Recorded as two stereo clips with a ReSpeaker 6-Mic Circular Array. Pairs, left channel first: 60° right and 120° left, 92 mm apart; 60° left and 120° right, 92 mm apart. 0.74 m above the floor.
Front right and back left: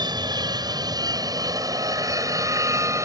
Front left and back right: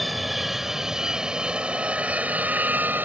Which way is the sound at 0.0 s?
150° left.